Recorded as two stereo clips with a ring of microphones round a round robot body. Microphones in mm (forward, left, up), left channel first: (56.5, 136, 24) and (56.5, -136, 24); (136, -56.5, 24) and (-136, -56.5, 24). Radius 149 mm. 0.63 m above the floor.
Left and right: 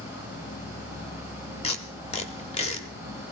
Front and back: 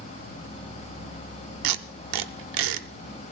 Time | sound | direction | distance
0.0 | an insect | 45° left | 1.2 m
1.6 | tape being pulled | 160° left | 0.6 m